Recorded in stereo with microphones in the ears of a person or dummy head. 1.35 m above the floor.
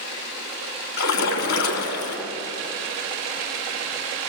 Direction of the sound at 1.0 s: 65° left (ahead or behind).